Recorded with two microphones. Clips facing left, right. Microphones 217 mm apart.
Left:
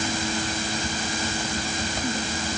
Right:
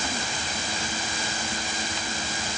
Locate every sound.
Only background noise.